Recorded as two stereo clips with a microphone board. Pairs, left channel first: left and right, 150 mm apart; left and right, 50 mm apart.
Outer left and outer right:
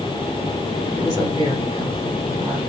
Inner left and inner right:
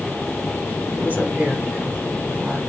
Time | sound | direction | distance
0.9 | a woman speaking | 30° right (ahead or behind) | 8.5 m